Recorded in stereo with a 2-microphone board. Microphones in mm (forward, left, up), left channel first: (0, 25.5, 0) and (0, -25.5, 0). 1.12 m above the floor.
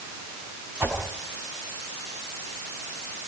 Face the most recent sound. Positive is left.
turn(degrees=-45)  # may be behind; listen again after turning